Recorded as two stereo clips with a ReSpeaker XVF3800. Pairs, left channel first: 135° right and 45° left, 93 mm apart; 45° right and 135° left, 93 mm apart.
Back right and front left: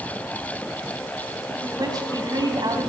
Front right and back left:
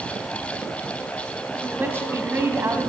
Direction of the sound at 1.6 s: 75° left.